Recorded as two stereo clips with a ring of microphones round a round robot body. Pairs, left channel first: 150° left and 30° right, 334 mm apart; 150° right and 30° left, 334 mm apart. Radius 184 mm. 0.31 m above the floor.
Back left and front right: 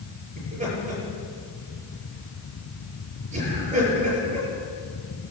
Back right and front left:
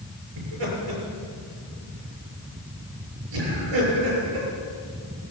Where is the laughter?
40° left, 7 m.